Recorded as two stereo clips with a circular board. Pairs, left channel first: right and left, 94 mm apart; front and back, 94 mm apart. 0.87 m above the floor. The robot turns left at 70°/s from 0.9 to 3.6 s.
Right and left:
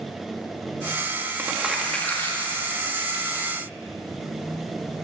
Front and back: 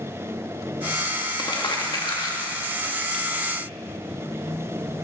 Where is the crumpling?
30° left, 1.9 m; by 3.5 s 120° right, 1.9 m.